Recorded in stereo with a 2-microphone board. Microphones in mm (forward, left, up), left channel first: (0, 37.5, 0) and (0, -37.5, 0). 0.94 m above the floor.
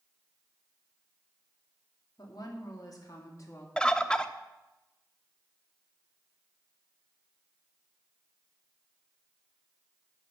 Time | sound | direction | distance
2.2 | a woman speaking | 65° left (ahead or behind) | 2.5 m
3.8 | a bird | 10° left (ahead or behind) | 0.5 m